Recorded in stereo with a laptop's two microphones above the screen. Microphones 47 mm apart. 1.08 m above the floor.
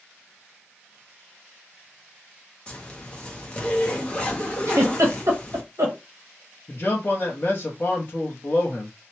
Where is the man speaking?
40° left (ahead or behind), 0.8 m.